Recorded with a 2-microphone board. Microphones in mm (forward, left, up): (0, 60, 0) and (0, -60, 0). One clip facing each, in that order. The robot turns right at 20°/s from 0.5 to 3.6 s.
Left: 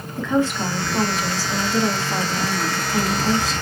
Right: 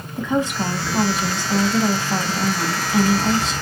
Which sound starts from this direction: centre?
A woman speaking, at 0.2 s.